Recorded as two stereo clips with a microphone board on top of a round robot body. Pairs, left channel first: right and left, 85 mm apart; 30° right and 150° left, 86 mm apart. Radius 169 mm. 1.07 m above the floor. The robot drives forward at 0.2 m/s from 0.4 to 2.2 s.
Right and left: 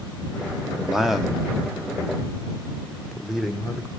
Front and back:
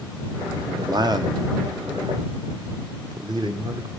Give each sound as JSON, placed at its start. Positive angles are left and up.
{"t": 0.8, "sound": "a man speaking", "azimuth_deg": 175, "distance_m": 1.1}